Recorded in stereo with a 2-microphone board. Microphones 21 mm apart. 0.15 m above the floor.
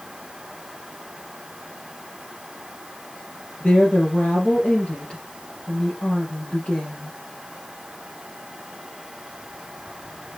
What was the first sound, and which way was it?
A woman speaking, 50° left (ahead or behind).